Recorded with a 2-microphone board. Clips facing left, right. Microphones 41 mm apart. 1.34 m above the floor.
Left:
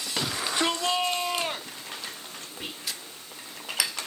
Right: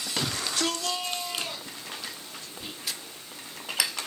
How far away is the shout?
About 0.7 m.